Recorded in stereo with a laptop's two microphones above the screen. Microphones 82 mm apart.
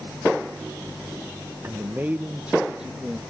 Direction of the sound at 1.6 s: 35° right (ahead or behind).